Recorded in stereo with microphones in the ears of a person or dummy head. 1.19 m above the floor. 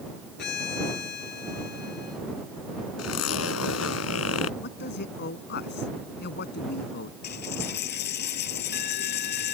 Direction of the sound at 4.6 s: 60° left (ahead or behind).